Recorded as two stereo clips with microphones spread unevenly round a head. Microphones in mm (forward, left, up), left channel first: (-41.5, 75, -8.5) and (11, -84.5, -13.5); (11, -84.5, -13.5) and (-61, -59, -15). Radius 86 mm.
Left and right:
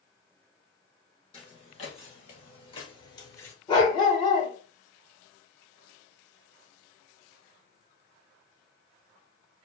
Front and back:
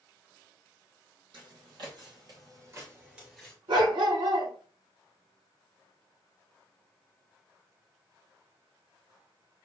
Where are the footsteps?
160° left, 2.5 m; by 3.5 s 55° left, 1.3 m.